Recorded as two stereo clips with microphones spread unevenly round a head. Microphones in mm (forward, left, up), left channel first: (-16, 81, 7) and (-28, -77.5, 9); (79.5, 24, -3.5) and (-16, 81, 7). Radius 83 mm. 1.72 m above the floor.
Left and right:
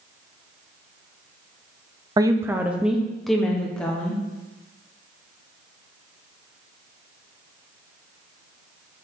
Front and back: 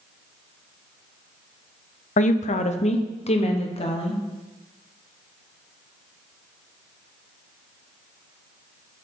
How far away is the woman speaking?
About 0.6 m.